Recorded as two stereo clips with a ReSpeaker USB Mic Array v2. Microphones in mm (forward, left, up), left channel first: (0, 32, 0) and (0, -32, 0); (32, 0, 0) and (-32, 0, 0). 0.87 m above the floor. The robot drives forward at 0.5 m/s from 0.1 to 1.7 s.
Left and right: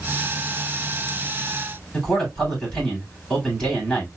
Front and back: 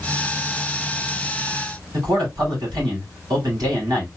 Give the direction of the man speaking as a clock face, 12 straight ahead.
6 o'clock.